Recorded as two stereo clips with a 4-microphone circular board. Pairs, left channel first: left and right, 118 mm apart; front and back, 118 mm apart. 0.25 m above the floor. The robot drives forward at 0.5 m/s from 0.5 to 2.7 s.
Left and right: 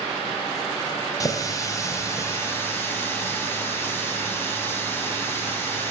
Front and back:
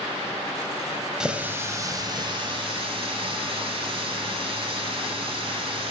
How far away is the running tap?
About 0.8 m.